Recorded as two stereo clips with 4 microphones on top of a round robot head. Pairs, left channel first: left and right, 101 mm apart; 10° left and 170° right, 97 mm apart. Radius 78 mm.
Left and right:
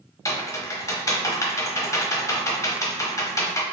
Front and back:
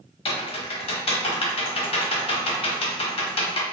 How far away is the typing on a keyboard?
About 0.9 m.